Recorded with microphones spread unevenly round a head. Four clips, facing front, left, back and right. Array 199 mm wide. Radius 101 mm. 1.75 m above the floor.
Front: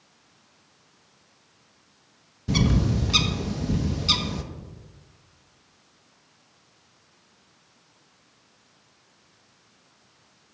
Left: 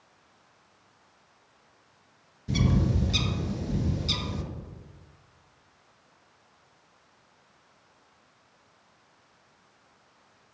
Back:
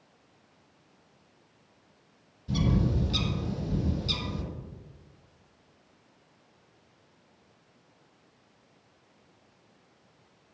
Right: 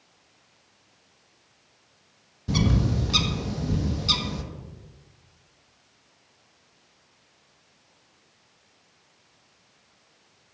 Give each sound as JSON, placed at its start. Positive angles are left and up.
{"t": 2.5, "sound": "a bird", "azimuth_deg": -30, "distance_m": 1.4}